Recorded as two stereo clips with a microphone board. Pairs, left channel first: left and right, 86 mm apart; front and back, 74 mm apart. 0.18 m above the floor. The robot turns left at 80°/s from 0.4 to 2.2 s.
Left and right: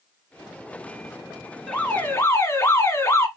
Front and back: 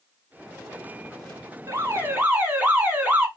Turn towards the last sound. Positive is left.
turn(degrees=130)